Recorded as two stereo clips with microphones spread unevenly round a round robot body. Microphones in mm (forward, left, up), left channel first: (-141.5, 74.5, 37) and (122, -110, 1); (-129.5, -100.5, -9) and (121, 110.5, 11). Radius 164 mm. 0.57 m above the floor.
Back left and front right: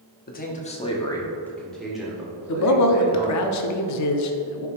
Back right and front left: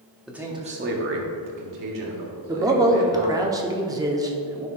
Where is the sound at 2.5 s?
120° left, 0.8 m.